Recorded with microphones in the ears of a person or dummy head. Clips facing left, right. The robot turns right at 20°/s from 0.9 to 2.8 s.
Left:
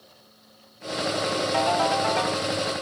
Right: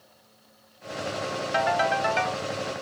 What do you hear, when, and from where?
1.5 s a ringtone: 15° right (ahead or behind), 1.2 m; by 2.5 s 35° right (ahead or behind), 1.2 m